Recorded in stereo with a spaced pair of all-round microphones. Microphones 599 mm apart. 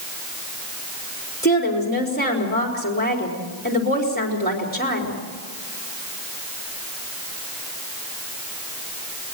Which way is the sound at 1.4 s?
15° left (ahead or behind).